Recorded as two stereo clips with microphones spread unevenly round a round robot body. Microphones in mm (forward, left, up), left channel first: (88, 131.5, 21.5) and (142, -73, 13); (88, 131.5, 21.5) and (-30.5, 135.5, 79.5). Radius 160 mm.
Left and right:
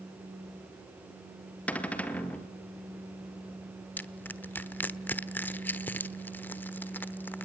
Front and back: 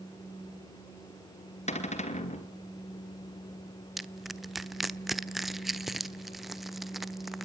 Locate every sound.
1.7 s a cupboard door: 20° left, 2.5 m
4.0 s crushing: 30° left, 1.1 m